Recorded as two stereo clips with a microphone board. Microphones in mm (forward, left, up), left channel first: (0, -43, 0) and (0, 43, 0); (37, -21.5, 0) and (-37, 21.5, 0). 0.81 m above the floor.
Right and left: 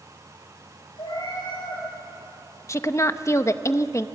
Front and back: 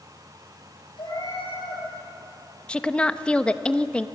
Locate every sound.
1.0 s a cat meowing: 60° right, 9.5 m
2.7 s a woman speaking: 100° right, 0.8 m